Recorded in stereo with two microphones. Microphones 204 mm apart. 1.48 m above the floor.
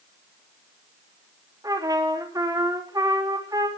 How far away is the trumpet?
About 3.5 m.